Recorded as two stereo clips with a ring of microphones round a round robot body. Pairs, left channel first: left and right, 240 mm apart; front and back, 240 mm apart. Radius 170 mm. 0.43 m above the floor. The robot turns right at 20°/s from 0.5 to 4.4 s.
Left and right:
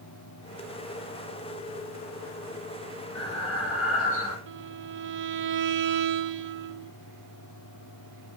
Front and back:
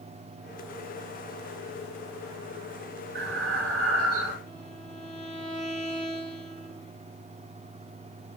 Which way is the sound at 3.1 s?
140° left.